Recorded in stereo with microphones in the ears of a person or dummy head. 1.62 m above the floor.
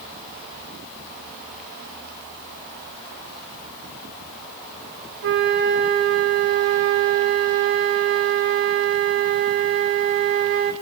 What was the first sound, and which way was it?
A flute, 60° right (ahead or behind).